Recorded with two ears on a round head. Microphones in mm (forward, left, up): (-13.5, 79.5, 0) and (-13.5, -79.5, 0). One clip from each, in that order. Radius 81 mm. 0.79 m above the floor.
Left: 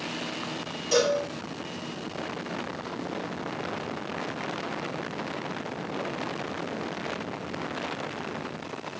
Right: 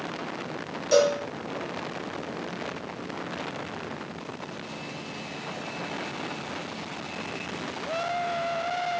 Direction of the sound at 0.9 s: 20° right (ahead or behind).